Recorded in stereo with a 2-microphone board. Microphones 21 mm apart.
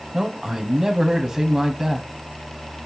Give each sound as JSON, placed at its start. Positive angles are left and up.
{"t": 0.1, "sound": "a man speaking", "side_deg": -15, "distance_m": 1.1}